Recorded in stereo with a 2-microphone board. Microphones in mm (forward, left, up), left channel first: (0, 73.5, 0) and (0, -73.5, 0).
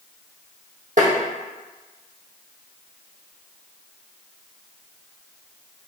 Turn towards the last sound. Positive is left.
turn(degrees=-60)  # may be behind; listen again after turning